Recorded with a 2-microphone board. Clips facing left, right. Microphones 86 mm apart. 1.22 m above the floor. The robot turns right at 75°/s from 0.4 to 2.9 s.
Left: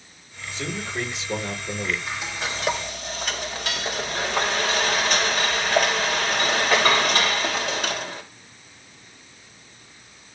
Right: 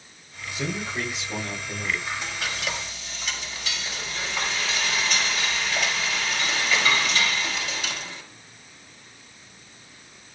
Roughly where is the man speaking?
Ahead.